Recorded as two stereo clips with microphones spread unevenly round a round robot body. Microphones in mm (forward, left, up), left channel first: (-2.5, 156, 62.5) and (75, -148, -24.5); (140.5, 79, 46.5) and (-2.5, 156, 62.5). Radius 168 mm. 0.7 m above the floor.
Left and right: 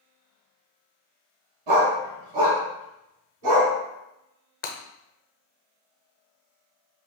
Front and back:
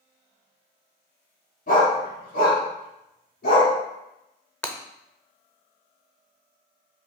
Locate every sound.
1.7 s a dog barking: 90° right, 2 m; by 3.7 s 65° right, 2.5 m
4.6 s breaking glass: 55° left, 0.7 m